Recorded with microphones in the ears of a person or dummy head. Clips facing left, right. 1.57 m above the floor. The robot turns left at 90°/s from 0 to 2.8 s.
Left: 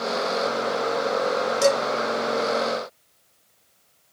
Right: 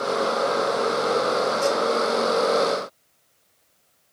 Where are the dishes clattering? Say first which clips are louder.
Left 7 dB; 60° left (ahead or behind), 1.6 m; by 1.8 s 70° left (ahead or behind), 1.6 m.